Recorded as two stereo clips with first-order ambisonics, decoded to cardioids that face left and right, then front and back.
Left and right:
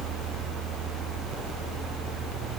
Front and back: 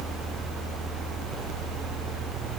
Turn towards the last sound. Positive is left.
No sound to turn to.